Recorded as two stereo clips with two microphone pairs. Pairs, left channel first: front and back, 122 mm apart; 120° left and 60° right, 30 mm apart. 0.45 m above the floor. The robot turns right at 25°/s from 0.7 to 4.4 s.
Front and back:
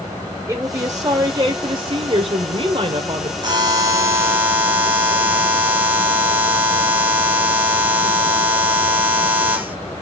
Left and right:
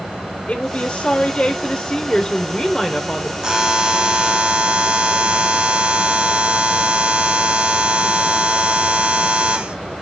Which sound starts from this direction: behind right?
A buzzer, at 3.4 s.